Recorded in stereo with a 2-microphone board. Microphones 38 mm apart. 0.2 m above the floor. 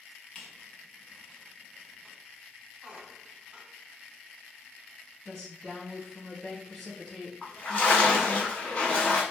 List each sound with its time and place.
0.3 s a squeak: 25° left (ahead or behind), 1.1 m
2.8 s a squeak: 25° right (ahead or behind), 0.6 m
5.2 s a woman speaking: 5° left (ahead or behind), 1.5 m
7.4 s a splash: 35° left (ahead or behind), 1.1 m